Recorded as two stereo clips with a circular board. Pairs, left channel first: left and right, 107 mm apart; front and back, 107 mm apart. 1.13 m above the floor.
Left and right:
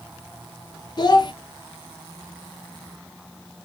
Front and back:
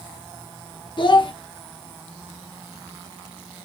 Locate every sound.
1.0 s a child speaking: 40° left, 0.6 m